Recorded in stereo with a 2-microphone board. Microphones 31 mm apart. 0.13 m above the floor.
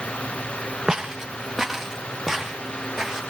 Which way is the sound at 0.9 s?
15° right (ahead or behind).